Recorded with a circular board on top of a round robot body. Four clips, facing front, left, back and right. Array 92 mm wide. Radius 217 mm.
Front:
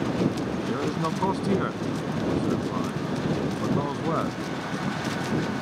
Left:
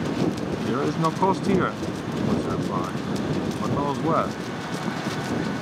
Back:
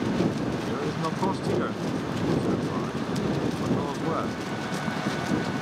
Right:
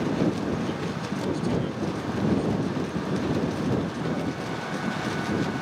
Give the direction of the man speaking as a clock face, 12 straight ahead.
9 o'clock.